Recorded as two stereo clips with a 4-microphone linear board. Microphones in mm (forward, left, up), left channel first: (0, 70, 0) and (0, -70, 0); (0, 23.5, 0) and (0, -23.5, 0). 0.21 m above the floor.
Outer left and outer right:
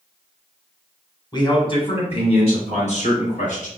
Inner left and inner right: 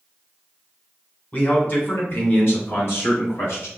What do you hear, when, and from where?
1.3 s a man speaking: 30° left (ahead or behind), 1.6 m; by 3.7 s 60° left (ahead or behind), 2.5 m